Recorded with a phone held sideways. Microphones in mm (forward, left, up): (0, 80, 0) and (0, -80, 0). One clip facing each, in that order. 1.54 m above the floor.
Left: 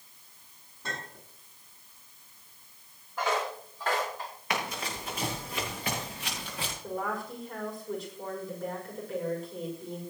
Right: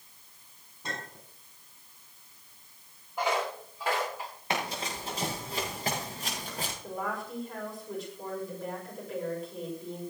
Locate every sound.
0.8 s a clink: 15° right (ahead or behind), 9 m
3.2 s footsteps: 15° right (ahead or behind), 6 m; by 4.3 s 5° right (ahead or behind), 7.5 m
4.5 s running footsteps: 30° right (ahead or behind), 8 m; by 6.7 s 40° right (ahead or behind), 6 m
6.8 s a woman speaking: centre (ahead or behind), 6 m